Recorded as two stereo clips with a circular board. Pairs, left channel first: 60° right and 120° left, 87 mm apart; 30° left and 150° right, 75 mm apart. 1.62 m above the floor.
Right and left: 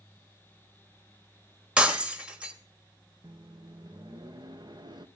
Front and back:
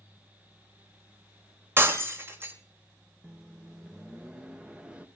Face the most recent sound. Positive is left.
turn(degrees=140)